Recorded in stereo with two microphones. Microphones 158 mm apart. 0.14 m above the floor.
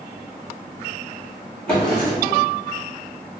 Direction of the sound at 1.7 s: 5° left (ahead or behind).